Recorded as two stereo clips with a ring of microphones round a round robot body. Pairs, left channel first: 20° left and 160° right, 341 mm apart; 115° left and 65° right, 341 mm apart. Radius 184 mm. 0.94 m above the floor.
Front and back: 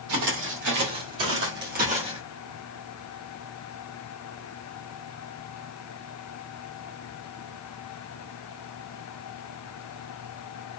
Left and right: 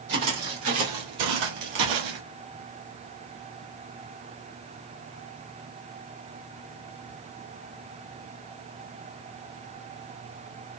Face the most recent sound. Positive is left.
turn(degrees=-80)